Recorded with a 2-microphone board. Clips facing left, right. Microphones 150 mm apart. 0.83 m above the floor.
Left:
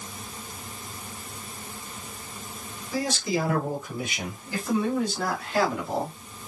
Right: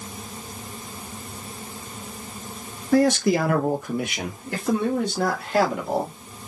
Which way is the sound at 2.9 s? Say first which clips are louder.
Right 9 dB; 60° right (ahead or behind).